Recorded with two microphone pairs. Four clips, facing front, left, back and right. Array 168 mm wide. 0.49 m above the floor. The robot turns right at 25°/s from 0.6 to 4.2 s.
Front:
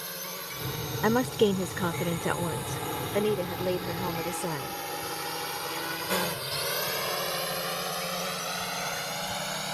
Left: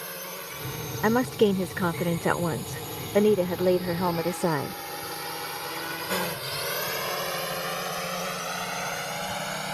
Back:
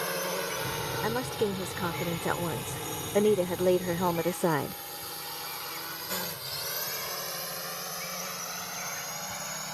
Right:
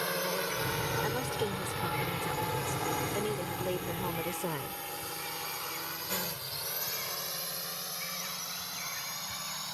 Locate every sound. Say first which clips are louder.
0.0 s a drone: right 6 dB, back 9 dB; 155° right; by 9.8 s 65° left
1.0 s a woman speaking: left 11 dB, front 7 dB; 55° left; by 4.8 s 135° left